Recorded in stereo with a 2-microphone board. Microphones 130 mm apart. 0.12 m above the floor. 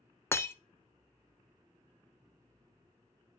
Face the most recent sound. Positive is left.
turn(degrees=20)  # may be behind; listen again after turning